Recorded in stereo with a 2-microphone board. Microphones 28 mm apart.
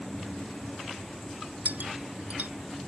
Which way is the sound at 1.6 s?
85° right.